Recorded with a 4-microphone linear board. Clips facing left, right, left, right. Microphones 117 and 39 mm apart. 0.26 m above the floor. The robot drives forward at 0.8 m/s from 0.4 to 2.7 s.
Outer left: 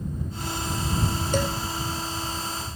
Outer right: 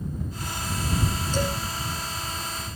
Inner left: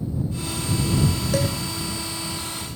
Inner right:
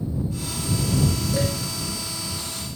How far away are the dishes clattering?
About 6.5 m.